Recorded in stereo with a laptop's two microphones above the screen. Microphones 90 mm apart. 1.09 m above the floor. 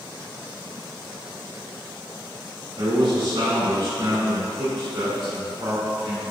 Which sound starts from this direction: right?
A man speaking, at 2.8 s.